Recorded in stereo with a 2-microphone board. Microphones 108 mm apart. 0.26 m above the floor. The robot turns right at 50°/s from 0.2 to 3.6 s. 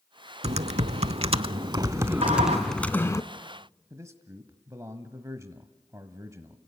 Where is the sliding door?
80° right, 9.5 m; by 2.6 s 85° right, 9.5 m.